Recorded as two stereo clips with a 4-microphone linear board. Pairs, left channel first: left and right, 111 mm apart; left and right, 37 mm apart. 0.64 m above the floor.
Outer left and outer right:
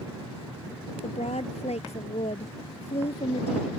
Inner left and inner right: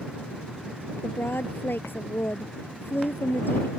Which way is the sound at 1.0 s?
85° left.